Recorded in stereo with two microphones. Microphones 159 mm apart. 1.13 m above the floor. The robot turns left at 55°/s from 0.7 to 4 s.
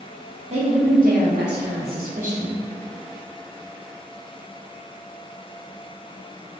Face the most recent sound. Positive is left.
turn(degrees=135)